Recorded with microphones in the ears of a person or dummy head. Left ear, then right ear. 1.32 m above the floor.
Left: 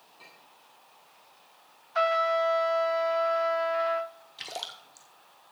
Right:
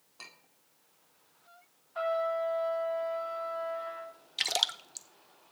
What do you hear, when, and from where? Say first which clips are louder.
0.2 s a clink: right 3 dB; 50° right (ahead or behind), 1.8 m
1.9 s a trumpet: left 6 dB; 60° left (ahead or behind), 0.8 m
4.4 s a splash: right 8 dB; 45° right (ahead or behind), 0.5 m